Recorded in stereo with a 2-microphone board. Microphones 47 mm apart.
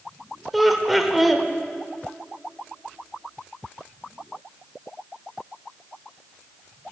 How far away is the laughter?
About 0.9 m.